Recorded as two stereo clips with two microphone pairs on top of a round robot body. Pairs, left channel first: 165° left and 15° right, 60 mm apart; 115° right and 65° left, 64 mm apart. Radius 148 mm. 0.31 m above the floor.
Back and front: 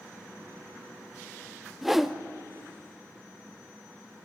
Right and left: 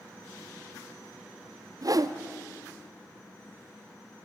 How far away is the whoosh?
About 1.0 m.